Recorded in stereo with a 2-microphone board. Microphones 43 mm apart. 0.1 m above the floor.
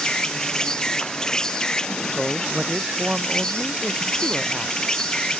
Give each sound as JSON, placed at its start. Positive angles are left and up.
{"t": 0.0, "sound": "an insect", "side_deg": 15}
{"t": 2.1, "sound": "a man speaking", "side_deg": -20}